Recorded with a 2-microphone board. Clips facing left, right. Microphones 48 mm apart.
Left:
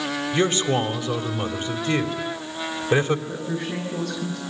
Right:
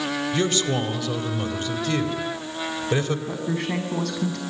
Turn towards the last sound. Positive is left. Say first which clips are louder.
# right 2 dB
turn(degrees=-75)  # may be behind; listen again after turning